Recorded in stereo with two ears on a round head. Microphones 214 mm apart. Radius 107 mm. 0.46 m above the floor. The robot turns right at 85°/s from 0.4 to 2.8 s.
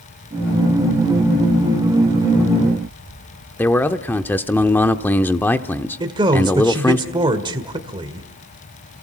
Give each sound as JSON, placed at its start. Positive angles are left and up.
{"t": 3.6, "sound": "a man speaking", "side_deg": 10, "distance_m": 0.8}
{"t": 6.0, "sound": "a man speaking", "side_deg": -20, "distance_m": 1.7}